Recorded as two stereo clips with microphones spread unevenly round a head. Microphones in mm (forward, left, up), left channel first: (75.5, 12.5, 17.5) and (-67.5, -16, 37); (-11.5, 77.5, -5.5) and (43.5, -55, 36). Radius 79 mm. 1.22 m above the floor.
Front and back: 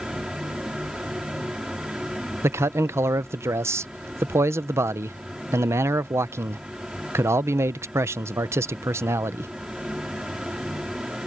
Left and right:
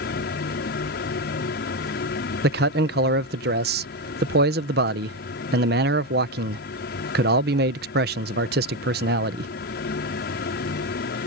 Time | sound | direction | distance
0.0 | a fan | 105° left | ?
2.4 | a man speaking | 95° right | ?